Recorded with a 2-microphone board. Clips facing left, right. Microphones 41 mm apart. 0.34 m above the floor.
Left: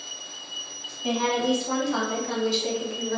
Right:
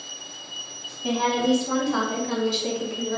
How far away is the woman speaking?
About 1.8 m.